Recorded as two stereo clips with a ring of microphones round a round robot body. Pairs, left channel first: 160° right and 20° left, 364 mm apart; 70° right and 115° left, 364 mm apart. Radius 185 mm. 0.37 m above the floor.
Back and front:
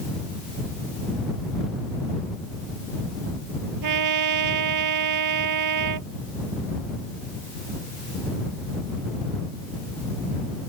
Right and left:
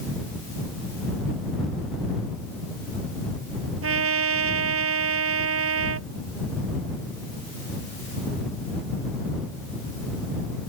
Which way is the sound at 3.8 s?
60° left.